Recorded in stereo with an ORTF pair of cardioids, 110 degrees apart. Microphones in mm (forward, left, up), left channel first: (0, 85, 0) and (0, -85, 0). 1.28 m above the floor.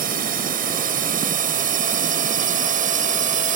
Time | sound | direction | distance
0.0 | a drone | 60° right | ?